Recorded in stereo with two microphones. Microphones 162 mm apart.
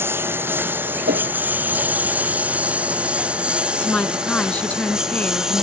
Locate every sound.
0.0 s a lawn mower: 15° right (ahead or behind); by 5.6 s 5° right (ahead or behind)
1.1 s a whoosh: 80° right
3.8 s a woman speaking: 10° left (ahead or behind)